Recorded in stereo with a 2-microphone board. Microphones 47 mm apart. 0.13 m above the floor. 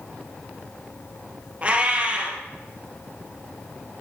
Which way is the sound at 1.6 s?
30° right (ahead or behind).